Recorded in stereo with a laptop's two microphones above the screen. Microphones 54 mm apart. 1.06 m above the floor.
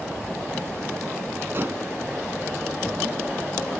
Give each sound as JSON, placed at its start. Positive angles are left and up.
{"t": 1.5, "sound": "dishes clattering", "side_deg": -40}